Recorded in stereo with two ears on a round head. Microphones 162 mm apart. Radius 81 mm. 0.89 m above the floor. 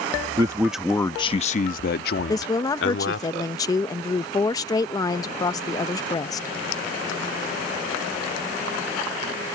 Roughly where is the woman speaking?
Centre.